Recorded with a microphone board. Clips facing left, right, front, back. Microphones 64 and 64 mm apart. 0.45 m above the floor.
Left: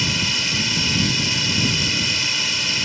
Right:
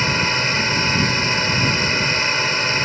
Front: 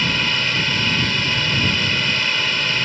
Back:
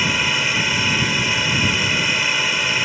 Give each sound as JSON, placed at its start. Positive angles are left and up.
{"t": 0.0, "sound": "a drone", "azimuth_deg": -105}